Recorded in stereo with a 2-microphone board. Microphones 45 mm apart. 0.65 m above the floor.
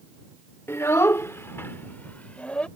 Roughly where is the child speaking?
Left.